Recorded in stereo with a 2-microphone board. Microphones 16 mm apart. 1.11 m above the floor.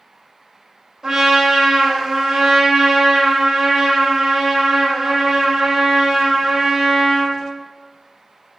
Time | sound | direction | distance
1.0 | a trumpet | 40° right (ahead or behind) | 2 m